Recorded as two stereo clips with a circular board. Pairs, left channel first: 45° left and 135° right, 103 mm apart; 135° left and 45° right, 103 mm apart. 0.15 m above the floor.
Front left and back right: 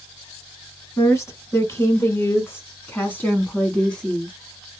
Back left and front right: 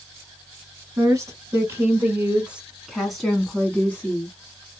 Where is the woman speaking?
5° right, 2 m; by 4.3 s 120° left, 1.7 m.